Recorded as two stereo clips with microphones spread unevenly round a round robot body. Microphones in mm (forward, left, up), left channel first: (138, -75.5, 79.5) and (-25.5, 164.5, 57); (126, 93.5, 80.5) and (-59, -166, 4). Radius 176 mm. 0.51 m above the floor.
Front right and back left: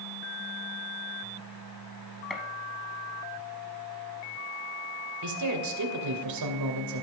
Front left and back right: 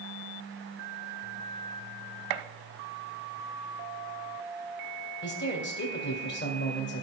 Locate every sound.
2.3 s a gunshot: 145° right, 0.8 m
5.2 s a man speaking: 120° left, 2.5 m